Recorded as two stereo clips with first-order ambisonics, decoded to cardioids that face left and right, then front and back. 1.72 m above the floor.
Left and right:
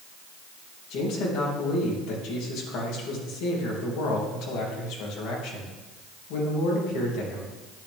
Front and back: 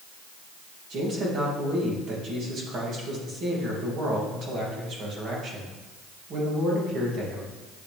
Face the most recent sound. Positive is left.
turn(degrees=125)